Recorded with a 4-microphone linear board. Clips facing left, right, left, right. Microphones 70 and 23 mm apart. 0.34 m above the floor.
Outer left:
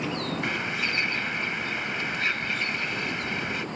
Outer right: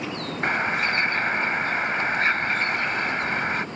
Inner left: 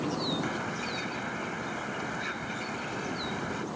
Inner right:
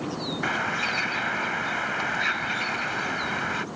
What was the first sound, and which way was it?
A bird, 45° right (ahead or behind).